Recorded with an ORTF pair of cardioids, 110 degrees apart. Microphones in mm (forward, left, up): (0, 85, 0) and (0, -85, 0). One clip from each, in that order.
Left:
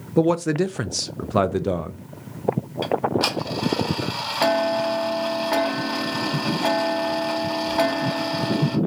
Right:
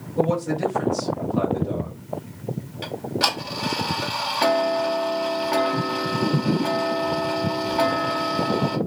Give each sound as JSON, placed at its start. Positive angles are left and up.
{"t": 0.2, "sound": "a man speaking", "azimuth_deg": 65, "distance_m": 0.5}
{"t": 2.8, "sound": "ticking", "azimuth_deg": 20, "distance_m": 1.0}